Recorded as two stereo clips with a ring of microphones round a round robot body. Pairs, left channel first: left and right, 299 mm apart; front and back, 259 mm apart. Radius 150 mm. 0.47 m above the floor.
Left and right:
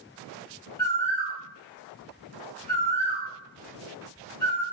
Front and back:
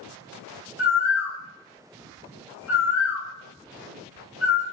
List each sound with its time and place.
0.8 s a bird: 15° left, 1.9 m